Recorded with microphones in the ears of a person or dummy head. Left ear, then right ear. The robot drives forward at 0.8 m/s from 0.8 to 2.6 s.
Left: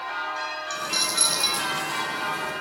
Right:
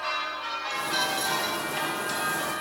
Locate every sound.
0.7 s a dropped coin: 30° left (ahead or behind)